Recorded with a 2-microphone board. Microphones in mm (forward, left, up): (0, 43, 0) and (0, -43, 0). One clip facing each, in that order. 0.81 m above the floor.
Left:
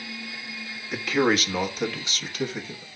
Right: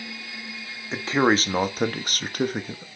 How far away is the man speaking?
About 1.3 m.